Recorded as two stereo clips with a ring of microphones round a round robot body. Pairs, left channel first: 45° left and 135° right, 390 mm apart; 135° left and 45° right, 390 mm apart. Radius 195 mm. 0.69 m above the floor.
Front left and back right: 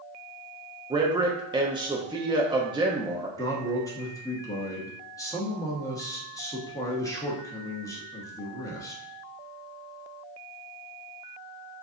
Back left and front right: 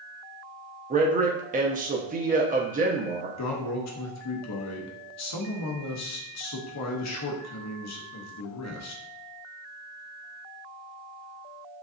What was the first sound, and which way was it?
A man speaking, 75° right.